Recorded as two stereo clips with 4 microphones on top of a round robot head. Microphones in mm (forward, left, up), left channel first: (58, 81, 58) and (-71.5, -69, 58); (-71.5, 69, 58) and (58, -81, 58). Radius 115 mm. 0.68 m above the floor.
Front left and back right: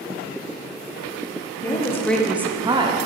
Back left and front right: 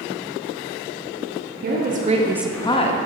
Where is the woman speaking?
20° right, 1.2 m; by 3.0 s 170° left, 0.9 m.